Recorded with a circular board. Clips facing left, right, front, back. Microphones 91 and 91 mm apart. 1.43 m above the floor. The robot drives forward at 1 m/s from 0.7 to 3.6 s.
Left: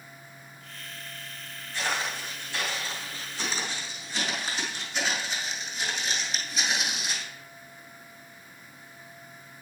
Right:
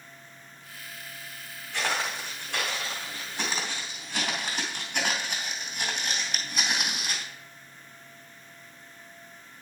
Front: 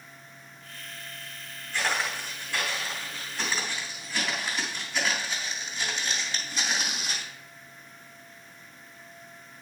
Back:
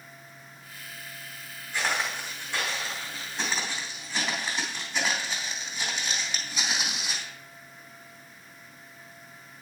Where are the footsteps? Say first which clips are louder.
Right 1 dB, even; 105° right, 4.5 m; by 7.3 s 100° right, 2 m.